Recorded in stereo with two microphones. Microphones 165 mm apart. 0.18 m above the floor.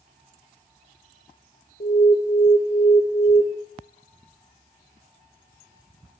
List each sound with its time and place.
1.8 s an alarm: 60° left (ahead or behind), 4.5 m